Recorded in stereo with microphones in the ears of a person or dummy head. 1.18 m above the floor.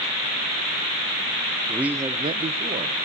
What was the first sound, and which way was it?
A man speaking, centre (ahead or behind).